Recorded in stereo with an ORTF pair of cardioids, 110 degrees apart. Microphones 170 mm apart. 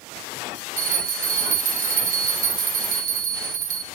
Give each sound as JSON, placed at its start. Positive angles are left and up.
{"t": 0.8, "sound": "a bell", "azimuth_deg": -50, "distance_m": 1.2}